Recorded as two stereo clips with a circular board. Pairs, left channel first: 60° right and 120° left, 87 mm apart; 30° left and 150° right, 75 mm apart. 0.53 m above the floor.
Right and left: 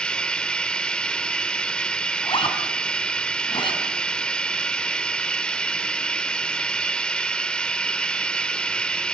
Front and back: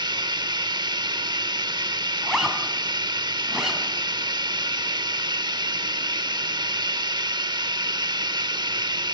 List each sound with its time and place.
0.0 s running water: 140° right, 0.7 m
2.2 s a zipper: 65° right, 5 m